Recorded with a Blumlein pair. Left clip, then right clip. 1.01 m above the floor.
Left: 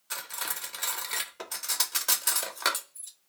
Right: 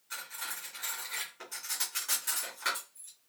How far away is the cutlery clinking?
About 0.6 m.